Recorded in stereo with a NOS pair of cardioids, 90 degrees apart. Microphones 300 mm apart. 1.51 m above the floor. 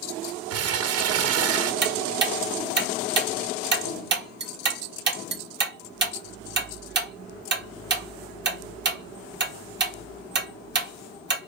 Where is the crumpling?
55° right, 0.7 m.